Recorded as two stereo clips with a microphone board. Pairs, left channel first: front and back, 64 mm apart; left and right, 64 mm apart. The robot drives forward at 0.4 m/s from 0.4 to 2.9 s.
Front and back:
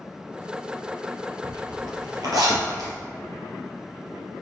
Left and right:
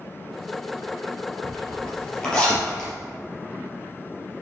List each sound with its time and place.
1.4 s a zipper: 165° left, 4 m